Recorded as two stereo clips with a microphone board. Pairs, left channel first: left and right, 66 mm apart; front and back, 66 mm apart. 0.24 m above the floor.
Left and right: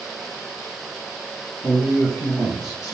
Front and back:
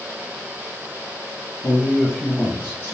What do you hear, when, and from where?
1.6 s a man speaking: 105° left, 1.2 m; by 3.0 s 25° right, 1.3 m